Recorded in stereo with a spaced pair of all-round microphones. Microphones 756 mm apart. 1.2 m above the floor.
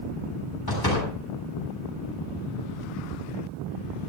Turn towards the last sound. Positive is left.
turn(degrees=30)  # may be behind; listen again after turning